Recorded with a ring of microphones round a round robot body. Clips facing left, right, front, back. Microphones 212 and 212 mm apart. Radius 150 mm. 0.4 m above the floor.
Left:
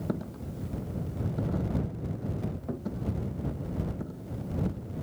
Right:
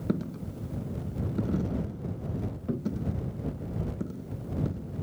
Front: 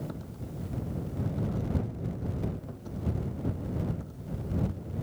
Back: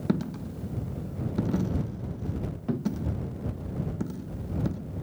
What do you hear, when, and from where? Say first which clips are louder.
0.1 s a dropped coin: right 6 dB, back 11 dB; 160° right